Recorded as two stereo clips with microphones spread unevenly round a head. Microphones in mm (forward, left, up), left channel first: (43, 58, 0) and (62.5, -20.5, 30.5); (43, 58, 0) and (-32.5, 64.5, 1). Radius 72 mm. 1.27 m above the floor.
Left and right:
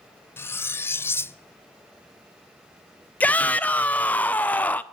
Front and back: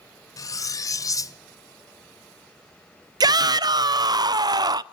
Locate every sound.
0.4 s cutlery clinking: 30° left, 0.5 m
3.2 s a shout: 155° left, 0.5 m